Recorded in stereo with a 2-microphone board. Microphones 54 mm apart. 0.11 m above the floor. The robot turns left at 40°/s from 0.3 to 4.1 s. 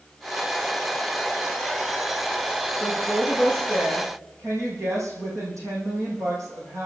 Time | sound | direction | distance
2.8 | a woman speaking | 30° right | 6.5 m